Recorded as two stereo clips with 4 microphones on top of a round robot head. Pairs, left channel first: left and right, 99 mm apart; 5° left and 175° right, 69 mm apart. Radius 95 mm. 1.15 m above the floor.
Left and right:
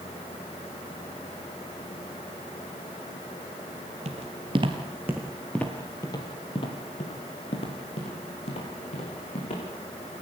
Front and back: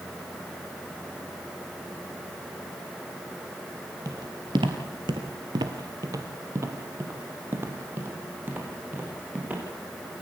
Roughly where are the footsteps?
Behind right.